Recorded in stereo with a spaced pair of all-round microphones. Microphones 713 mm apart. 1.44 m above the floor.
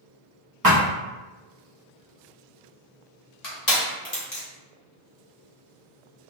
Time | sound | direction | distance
0.6 | a thud | 30° right (ahead or behind) | 0.8 m
3.4 | crushing | 65° left (ahead or behind) | 1.2 m